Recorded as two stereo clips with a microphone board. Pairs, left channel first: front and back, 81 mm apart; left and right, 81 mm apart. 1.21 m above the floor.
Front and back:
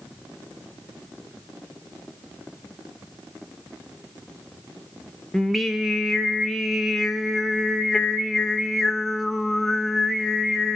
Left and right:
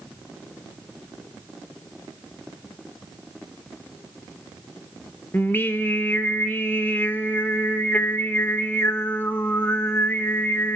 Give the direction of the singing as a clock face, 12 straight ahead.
9 o'clock.